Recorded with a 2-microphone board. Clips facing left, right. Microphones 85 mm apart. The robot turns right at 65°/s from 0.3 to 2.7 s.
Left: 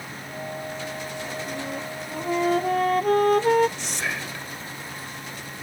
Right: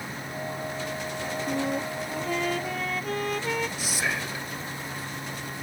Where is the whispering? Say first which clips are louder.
Right 1 dB; 5° right (ahead or behind).